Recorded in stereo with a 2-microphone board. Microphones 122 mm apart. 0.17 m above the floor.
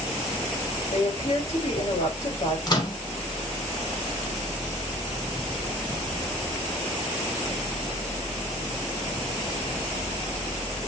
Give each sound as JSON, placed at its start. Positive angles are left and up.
{"t": 0.9, "sound": "a woman speaking", "side_deg": 70, "distance_m": 4.0}
{"t": 2.7, "sound": "a microwave", "side_deg": 35, "distance_m": 1.0}